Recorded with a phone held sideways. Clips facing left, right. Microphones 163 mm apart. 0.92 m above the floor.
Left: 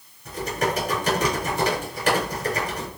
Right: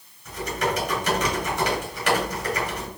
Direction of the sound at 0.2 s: 35° left (ahead or behind).